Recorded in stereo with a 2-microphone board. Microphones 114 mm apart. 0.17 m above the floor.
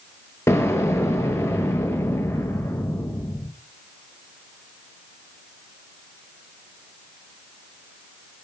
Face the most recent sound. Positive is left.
turn(degrees=25)  # may be behind; listen again after turning